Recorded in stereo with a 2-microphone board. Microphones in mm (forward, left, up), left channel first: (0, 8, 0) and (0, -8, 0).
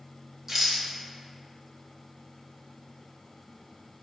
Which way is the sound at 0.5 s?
20° right (ahead or behind).